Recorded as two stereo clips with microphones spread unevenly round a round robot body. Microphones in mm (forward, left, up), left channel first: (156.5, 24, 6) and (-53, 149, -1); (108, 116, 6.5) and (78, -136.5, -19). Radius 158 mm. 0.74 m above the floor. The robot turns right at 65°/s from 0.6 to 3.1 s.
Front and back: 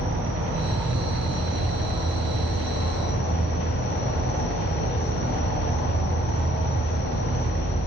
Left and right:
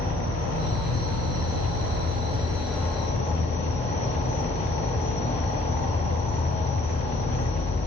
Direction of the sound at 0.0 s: 145° right.